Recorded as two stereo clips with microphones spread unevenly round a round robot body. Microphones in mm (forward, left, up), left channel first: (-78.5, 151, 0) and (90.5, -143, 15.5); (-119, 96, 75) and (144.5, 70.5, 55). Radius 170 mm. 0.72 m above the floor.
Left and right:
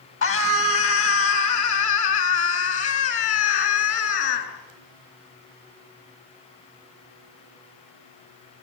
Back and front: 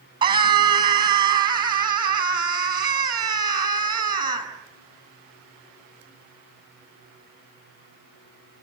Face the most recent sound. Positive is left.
turn(degrees=70)